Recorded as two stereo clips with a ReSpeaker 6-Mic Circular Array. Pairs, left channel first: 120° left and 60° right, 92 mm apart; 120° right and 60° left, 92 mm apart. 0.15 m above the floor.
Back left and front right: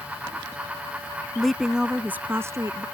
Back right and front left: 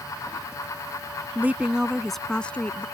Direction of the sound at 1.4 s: 45° left.